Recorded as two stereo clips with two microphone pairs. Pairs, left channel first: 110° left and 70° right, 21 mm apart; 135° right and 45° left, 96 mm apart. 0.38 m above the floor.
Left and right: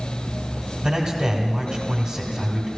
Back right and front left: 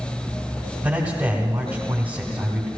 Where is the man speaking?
25° right, 1.7 m.